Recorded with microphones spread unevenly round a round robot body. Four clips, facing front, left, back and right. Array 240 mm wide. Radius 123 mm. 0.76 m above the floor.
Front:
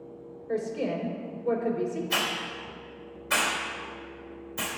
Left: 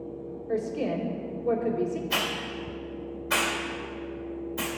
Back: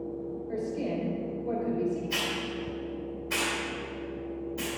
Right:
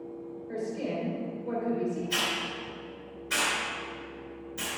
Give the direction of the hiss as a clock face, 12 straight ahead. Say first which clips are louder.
Left 2 dB, front 1 dB; 10 o'clock.